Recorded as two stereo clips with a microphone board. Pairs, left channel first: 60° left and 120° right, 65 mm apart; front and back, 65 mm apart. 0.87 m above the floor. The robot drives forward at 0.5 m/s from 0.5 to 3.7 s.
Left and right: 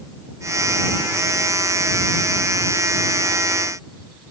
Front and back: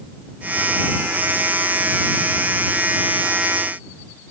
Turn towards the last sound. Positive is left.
No sound to turn to.